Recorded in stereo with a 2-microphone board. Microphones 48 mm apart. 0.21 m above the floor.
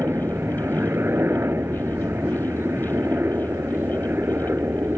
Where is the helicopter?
50° right (ahead or behind).